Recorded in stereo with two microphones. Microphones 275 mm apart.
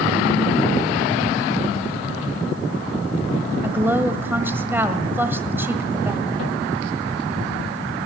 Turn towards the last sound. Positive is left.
turn(degrees=-10)  # may be behind; listen again after turning